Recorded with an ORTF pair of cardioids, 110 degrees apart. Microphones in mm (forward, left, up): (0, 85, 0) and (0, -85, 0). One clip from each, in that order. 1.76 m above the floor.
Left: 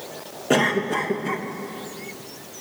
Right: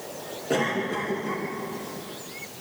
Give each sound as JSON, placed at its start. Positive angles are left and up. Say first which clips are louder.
{"t": 0.5, "sound": "a cough", "louder": "left 5 dB", "azimuth_deg": 50, "distance_m": 3.0}